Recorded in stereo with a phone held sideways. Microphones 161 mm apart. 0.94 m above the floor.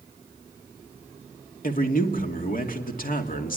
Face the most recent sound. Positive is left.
turn(degrees=60)  # may be behind; listen again after turning